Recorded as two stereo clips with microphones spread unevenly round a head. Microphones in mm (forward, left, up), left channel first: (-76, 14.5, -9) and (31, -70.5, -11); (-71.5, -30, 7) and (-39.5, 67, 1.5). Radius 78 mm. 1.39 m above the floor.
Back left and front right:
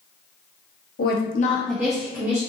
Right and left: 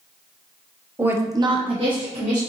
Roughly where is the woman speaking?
Behind left.